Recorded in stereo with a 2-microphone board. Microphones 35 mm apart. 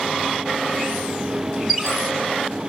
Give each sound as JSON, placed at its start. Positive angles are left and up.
{"t": 1.7, "sound": "a squeak", "side_deg": -5, "distance_m": 5.0}